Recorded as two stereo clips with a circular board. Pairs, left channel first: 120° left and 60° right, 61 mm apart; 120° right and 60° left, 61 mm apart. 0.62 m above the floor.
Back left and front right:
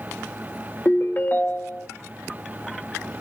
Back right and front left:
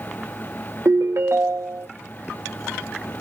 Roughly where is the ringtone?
Left.